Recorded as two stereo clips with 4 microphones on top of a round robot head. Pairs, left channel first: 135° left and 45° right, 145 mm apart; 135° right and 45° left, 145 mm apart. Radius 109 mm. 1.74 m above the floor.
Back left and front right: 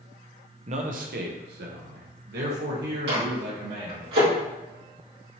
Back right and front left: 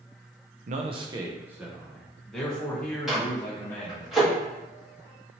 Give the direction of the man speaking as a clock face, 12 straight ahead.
12 o'clock.